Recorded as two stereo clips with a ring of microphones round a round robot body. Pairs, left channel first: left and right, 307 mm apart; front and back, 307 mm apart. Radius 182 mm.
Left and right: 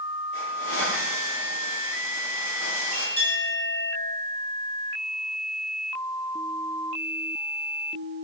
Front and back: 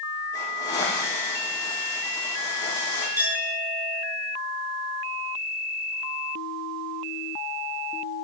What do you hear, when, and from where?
0.3 s a hiss: 75° left, 9 m
3.2 s a clink: 100° left, 6.5 m